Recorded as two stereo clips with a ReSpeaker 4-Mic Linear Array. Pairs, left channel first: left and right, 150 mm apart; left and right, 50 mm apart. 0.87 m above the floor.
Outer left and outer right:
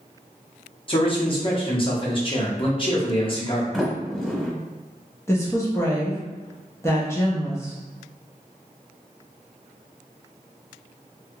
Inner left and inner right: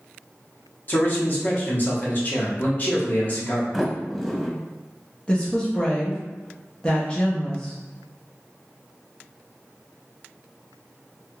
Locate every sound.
0.9 s a man speaking: 35° left (ahead or behind), 1.0 m
3.7 s a sliding door: 5° left (ahead or behind), 1.0 m
5.3 s a woman speaking: 20° left (ahead or behind), 0.7 m